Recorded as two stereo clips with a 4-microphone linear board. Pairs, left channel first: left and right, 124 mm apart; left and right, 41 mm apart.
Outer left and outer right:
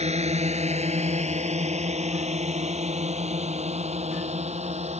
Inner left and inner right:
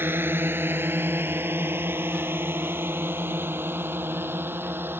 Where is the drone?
60° right (ahead or behind).